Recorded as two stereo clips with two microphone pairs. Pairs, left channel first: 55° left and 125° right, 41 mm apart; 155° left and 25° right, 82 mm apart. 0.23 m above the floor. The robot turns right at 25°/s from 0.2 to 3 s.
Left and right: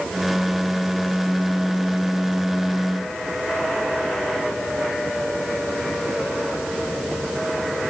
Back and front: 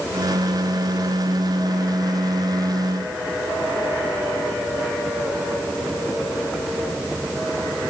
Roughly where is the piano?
I don't hear a piano.